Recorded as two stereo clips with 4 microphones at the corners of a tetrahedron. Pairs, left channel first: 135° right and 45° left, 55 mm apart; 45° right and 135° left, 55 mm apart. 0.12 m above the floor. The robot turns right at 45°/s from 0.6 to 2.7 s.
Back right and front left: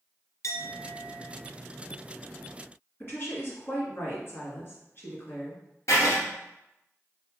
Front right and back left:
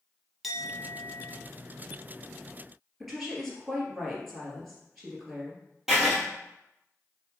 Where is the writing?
140° right, 1.7 m.